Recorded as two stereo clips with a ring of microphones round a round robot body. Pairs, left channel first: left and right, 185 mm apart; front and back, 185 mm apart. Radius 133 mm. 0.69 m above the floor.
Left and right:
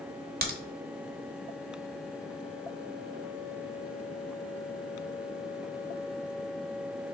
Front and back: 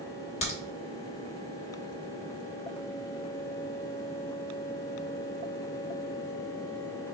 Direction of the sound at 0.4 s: 60° right.